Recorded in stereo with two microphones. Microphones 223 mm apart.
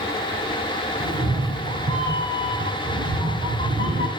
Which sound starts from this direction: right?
A cat meowing, at 1.0 s.